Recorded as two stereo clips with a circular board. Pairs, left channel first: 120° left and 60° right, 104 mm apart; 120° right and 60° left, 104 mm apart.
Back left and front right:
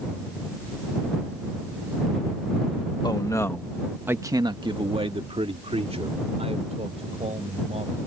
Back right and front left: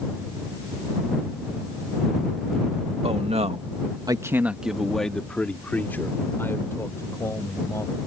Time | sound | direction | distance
3.0 | a man speaking | 70° left | ?